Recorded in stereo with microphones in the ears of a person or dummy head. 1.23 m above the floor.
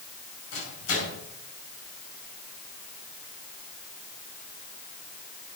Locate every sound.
0.5 s a microwave: 75° left (ahead or behind), 6 m